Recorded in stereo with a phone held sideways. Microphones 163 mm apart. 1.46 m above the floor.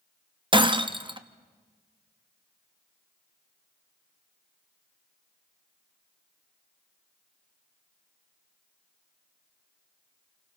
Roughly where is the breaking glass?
Right.